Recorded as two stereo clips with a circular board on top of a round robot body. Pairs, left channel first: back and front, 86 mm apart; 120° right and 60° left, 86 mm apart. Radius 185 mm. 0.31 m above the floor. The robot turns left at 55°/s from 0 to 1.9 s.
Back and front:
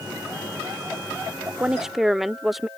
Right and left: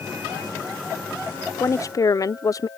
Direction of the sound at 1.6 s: 70° right.